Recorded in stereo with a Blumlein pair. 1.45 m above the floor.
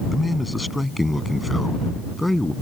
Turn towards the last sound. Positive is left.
turn(degrees=0)